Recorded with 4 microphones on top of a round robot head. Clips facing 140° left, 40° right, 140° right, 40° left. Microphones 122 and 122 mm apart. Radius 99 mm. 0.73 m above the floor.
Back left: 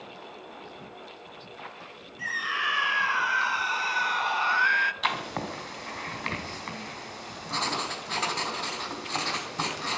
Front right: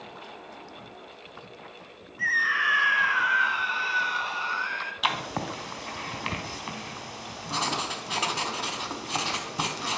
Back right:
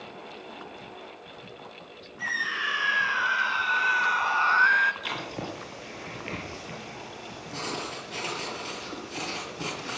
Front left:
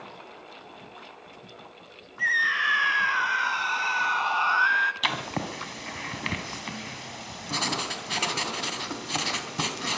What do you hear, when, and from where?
2.2 s a scream: 70° left, 3.5 m; by 4.9 s 130° left, 1.8 m
5.0 s writing: 40° left, 3.5 m